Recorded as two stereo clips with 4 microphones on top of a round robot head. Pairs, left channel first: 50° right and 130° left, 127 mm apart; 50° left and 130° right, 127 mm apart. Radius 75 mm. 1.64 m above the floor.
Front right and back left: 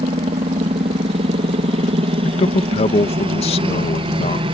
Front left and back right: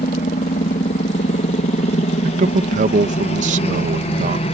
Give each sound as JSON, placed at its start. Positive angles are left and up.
{"t": 0.0, "sound": "a helicopter", "azimuth_deg": 85}
{"t": 2.2, "sound": "a man speaking", "azimuth_deg": -100}